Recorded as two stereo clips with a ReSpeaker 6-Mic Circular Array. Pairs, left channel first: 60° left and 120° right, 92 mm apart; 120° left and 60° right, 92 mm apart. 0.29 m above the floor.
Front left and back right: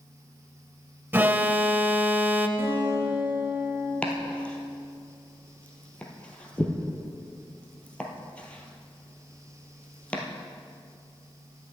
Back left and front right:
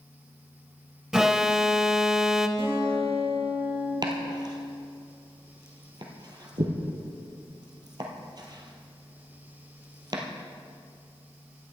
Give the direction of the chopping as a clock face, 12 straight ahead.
1 o'clock.